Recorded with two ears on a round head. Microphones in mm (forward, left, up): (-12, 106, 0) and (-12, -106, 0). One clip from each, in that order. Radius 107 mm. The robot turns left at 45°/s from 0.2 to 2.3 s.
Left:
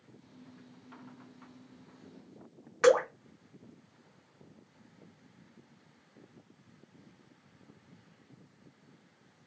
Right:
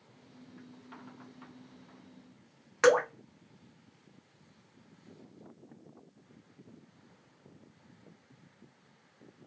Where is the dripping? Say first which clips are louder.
Even; 20° right (ahead or behind), 0.8 m.